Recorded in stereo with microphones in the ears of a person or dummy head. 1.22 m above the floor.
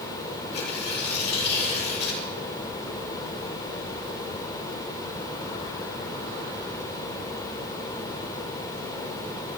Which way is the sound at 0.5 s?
65° left (ahead or behind).